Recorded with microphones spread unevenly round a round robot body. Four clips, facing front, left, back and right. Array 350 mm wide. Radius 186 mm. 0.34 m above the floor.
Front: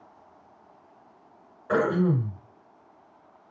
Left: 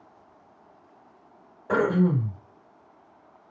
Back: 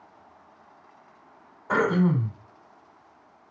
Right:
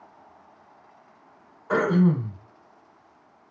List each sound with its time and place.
1.7 s throat clearing: 95° left, 2 m